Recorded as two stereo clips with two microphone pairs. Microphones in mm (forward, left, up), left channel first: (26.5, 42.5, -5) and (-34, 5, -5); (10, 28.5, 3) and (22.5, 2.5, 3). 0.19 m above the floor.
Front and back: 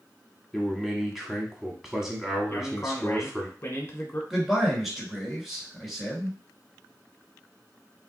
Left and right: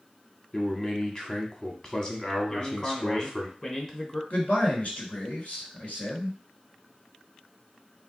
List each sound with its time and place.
0.5 s a man speaking: 130° left, 1.1 m
2.5 s a man speaking: 70° left, 1.4 m
4.3 s a man speaking: 120° left, 1.9 m